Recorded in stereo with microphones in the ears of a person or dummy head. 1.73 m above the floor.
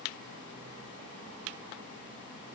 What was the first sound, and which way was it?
Only background noise.